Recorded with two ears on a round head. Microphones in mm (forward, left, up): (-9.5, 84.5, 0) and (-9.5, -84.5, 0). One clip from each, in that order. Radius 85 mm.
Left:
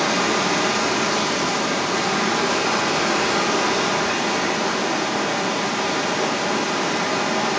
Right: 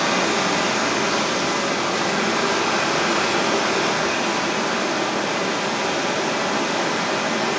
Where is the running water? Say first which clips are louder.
Even; 5° left (ahead or behind), 4.5 m.